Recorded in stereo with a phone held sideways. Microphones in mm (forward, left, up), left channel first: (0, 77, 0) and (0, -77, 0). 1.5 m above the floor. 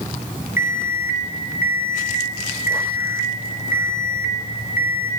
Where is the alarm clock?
15° right (ahead or behind), 0.9 m.